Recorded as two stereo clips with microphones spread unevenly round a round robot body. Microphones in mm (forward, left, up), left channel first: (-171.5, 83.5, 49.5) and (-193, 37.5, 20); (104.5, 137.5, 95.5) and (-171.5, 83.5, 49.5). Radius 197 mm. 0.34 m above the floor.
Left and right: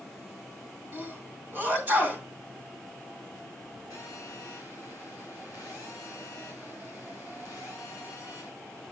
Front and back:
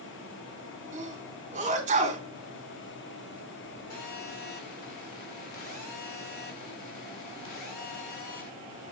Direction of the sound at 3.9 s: 20° left.